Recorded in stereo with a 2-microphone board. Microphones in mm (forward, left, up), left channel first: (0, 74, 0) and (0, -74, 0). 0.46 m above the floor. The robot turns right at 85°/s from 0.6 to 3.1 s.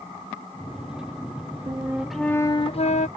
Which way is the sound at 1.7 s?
40° right.